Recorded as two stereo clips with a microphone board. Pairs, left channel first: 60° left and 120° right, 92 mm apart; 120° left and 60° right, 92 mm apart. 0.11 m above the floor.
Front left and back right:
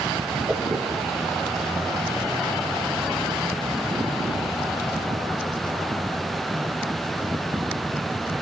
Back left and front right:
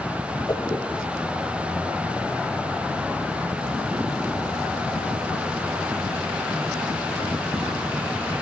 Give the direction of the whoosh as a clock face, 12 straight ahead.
6 o'clock.